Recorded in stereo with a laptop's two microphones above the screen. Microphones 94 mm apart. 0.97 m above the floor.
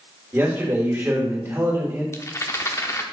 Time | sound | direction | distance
0.3 | a man speaking | 25° right (ahead or behind) | 2.5 m
2.1 | a rattle | 30° left (ahead or behind) | 0.9 m